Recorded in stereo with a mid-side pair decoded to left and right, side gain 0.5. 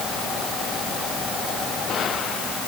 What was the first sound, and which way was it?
Only background noise.